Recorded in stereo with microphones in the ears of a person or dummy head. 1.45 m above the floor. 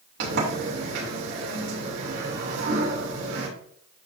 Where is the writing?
I don't hear writing.